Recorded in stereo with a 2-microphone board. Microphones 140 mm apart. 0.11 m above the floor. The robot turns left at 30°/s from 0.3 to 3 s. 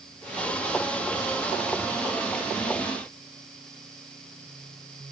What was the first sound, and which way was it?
Only background noise.